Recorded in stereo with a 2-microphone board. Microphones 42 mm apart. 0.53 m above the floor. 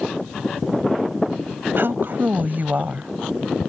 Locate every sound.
1.8 s a woman speaking: 65° right (ahead or behind); by 3.1 s 40° right (ahead or behind)